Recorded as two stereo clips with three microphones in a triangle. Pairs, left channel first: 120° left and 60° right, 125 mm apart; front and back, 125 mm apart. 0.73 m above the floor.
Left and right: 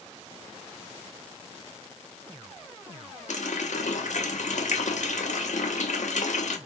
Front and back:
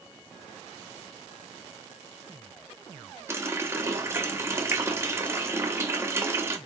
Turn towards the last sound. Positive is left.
turn(degrees=110)